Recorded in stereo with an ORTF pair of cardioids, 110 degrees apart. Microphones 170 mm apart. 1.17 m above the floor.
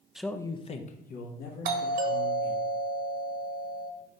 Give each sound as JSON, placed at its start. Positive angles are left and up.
{"t": 0.1, "sound": "a man speaking", "azimuth_deg": -5, "distance_m": 0.6}
{"t": 1.6, "sound": "a doorbell", "azimuth_deg": -60, "distance_m": 1.4}